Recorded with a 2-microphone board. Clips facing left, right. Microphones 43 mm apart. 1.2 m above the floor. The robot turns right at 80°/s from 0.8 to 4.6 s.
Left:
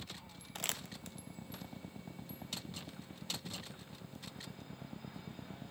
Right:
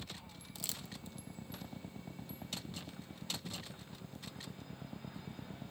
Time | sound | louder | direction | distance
0.6 | crumpling | left 5 dB | 55° left (ahead or behind) | 0.9 m